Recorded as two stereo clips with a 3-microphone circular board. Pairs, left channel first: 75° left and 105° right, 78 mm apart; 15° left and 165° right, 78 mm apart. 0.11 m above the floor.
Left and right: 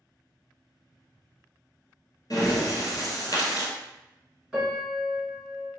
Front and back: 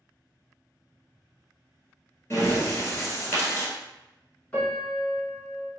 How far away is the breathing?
About 1.3 m.